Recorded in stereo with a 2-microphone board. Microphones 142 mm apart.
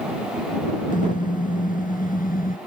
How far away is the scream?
I don't hear a scream.